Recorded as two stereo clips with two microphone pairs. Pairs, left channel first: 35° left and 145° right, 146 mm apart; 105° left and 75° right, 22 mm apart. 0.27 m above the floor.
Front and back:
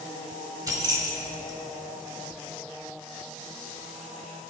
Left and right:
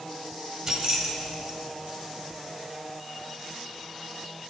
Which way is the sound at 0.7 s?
100° right.